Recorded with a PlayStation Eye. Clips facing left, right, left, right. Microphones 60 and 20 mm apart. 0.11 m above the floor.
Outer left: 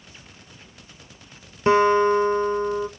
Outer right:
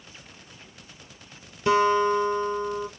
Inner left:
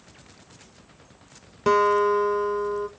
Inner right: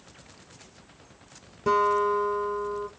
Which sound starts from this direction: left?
A guitar, at 1.7 s.